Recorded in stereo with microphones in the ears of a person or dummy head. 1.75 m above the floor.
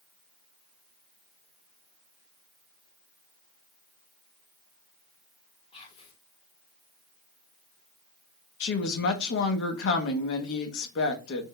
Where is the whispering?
35° left (ahead or behind), 0.8 m.